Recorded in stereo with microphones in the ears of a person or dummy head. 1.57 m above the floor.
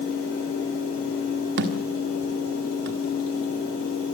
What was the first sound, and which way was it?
A thud, 45° right (ahead or behind).